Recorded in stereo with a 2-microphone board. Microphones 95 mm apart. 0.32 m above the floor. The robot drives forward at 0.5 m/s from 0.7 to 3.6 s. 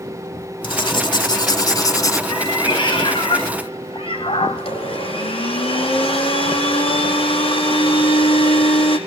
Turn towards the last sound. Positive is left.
turn(degrees=85)